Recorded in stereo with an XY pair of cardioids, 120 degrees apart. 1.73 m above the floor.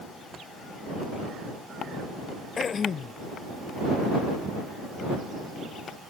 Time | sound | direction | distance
2.6 | throat clearing | 40° left | ?